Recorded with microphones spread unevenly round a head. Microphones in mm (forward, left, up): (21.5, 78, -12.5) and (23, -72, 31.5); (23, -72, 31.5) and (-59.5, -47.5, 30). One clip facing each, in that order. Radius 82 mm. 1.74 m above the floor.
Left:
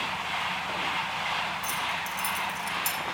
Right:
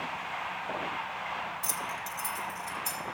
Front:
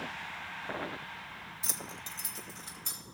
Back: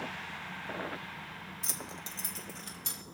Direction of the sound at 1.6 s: 100° right.